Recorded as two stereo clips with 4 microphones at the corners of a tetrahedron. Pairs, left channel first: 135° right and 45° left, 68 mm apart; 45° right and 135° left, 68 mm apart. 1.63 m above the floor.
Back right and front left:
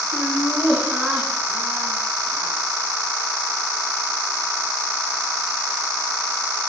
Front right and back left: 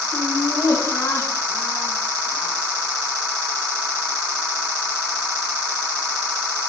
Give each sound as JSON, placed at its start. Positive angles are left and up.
{"t": 0.1, "sound": "laughter", "azimuth_deg": -45, "distance_m": 4.5}